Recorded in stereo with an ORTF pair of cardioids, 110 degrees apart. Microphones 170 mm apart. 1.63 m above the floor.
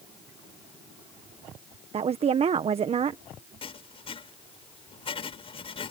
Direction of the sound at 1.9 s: 40° right.